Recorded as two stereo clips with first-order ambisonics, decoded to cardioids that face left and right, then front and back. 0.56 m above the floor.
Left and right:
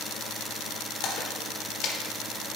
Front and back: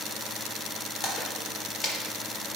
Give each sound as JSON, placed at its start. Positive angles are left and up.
{"t": 1.0, "sound": "a splash", "azimuth_deg": 60, "distance_m": 1.2}